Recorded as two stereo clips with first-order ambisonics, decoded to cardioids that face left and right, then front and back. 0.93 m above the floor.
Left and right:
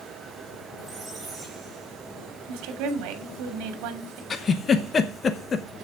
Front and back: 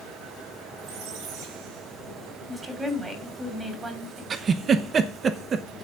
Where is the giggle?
135° left, 0.9 m.